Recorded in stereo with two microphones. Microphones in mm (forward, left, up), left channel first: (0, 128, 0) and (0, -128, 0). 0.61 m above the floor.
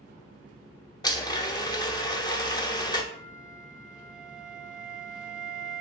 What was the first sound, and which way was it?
A blender, 15° left (ahead or behind).